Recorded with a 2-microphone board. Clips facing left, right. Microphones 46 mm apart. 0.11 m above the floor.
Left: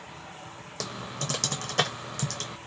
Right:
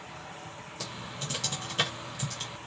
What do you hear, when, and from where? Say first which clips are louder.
0.8 s typing on a keyboard: left 5 dB; 80° left, 0.8 m